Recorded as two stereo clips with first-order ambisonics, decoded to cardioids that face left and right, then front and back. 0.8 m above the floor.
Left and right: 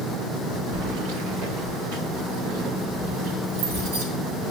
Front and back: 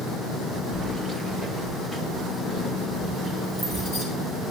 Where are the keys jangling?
110° right, 1.0 m; by 4.0 s 80° right, 5.5 m.